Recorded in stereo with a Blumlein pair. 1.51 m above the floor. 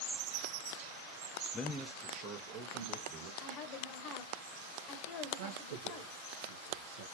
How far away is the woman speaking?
About 1.1 m.